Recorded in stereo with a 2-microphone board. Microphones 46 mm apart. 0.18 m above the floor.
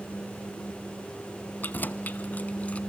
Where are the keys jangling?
40° left (ahead or behind), 1.0 m; by 2.8 s 30° left (ahead or behind), 1.1 m.